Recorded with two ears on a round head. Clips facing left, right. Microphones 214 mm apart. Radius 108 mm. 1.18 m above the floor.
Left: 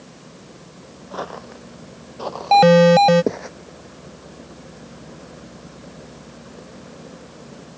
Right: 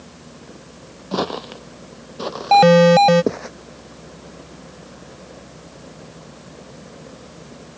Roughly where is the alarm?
Centre.